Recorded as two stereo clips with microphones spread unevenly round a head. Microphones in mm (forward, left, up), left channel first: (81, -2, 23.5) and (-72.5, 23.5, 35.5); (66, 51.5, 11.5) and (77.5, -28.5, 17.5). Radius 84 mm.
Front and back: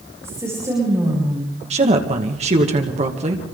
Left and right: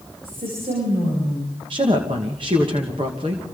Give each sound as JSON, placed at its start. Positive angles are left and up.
{"t": 0.2, "sound": "a woman speaking", "azimuth_deg": -115, "distance_m": 8.0}
{"t": 1.7, "sound": "a woman speaking", "azimuth_deg": -140, "distance_m": 2.0}